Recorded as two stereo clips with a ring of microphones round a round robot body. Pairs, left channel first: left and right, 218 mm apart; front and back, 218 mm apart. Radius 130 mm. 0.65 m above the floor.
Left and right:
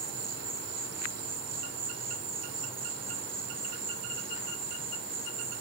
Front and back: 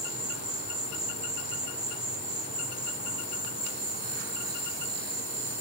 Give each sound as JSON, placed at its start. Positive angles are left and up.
{"t": 0.0, "sound": "an insect", "azimuth_deg": -120, "distance_m": 4.5}